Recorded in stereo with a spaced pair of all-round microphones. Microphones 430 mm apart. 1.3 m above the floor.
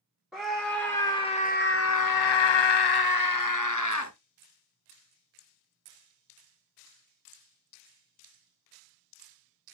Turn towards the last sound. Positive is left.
turn(degrees=40)  # may be behind; listen again after turning